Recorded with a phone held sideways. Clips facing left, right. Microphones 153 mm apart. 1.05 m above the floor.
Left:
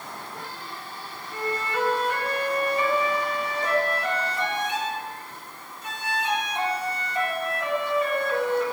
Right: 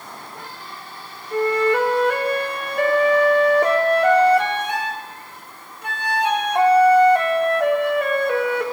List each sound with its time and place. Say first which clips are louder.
1.3 s a flute: right 11 dB; 65° right (ahead or behind), 3 m